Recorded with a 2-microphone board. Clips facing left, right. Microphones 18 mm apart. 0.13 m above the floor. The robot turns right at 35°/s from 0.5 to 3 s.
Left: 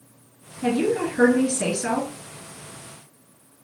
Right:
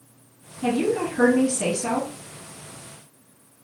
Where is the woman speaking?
25° left, 2.0 m; by 2.1 s 75° left, 2.0 m.